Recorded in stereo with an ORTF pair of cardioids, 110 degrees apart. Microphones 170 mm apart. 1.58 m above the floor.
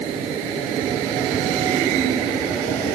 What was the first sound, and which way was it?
Only background noise.